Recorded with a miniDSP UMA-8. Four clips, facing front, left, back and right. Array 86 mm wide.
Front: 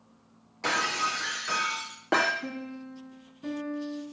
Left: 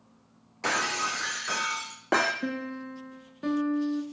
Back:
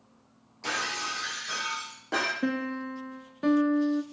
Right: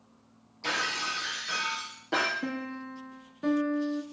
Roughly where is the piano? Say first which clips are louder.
Left 2 dB, back 8 dB; behind.